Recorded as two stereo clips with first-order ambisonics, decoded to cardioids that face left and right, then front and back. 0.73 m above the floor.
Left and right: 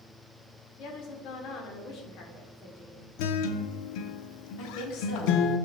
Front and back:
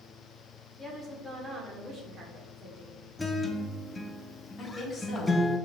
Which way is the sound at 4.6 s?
80° left.